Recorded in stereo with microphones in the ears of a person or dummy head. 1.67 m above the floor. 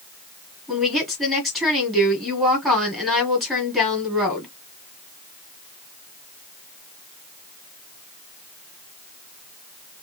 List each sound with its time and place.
0.7 s a woman speaking: centre (ahead or behind), 4 m